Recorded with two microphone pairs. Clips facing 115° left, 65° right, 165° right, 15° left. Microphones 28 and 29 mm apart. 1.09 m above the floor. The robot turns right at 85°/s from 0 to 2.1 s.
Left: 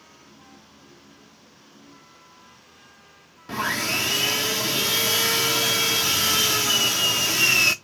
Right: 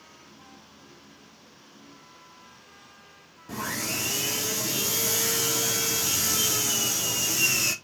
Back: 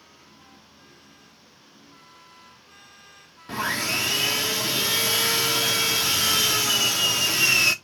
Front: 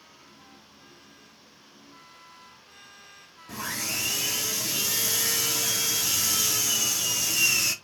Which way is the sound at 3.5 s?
160° left.